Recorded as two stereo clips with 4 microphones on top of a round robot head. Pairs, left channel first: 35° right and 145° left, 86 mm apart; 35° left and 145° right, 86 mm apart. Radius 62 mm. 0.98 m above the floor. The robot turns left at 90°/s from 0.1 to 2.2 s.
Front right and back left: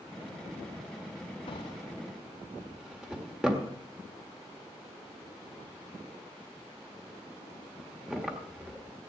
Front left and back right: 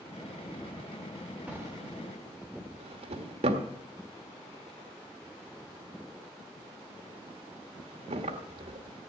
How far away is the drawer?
About 1.6 m.